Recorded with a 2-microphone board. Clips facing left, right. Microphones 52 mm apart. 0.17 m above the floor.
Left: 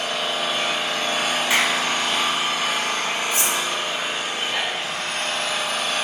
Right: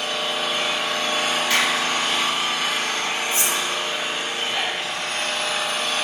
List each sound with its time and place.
0.0 s an engine running: 55° left (ahead or behind), 3 m
1.5 s a clap: 20° left (ahead or behind), 0.8 m
3.3 s cutlery clinking: 30° right (ahead or behind), 0.9 m